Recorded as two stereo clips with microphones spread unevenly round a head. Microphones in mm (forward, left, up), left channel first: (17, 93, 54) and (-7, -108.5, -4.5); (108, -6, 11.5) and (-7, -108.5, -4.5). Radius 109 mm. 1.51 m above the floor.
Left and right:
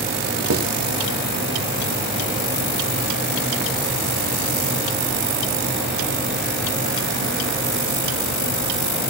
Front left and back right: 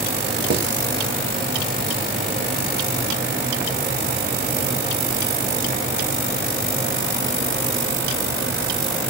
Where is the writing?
130° right, 3 m.